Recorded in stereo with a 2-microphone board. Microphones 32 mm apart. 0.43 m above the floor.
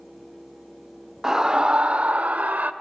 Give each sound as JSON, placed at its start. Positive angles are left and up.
{"t": 1.2, "sound": "a scream", "side_deg": -15, "distance_m": 0.8}